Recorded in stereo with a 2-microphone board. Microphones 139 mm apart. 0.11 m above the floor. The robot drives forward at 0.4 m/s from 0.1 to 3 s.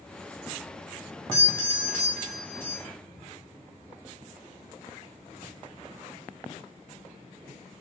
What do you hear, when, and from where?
1.3 s a doorbell: 20° left (ahead or behind), 1.9 m; by 2.9 s 15° left (ahead or behind), 2 m